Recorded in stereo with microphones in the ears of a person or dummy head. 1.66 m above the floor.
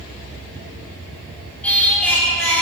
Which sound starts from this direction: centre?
Singing, at 1.6 s.